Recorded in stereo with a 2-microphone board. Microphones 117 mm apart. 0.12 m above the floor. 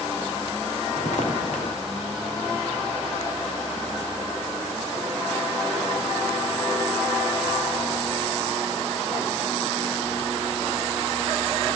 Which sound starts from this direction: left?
Footsteps, at 0.9 s.